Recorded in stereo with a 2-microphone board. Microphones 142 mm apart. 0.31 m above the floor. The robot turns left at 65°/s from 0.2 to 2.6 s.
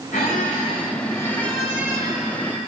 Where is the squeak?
90° left, 1.7 m; by 2.6 s 65° right, 1.7 m.